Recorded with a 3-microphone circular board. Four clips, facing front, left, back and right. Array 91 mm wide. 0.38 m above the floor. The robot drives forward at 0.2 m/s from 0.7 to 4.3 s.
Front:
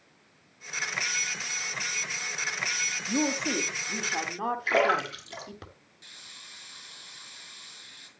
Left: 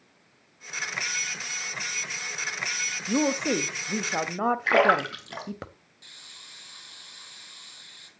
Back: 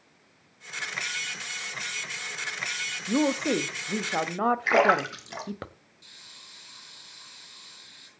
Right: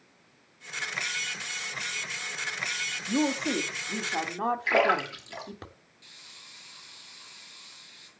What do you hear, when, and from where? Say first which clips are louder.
3.1 s a woman speaking: left 2 dB, back 4 dB; 135° left, 1.5 m; by 5.7 s 140° left, 1.6 m
4.7 s a splash: left 4 dB, back 2 dB; 120° left, 3.5 m
6.0 s a hiss: left 3 dB, front 4 dB; 40° left, 5.5 m